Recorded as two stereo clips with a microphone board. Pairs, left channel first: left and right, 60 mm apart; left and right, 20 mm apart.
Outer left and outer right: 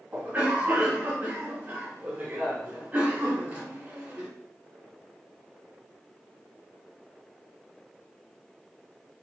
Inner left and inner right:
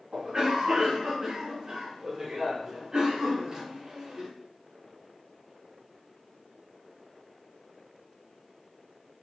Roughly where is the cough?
Right.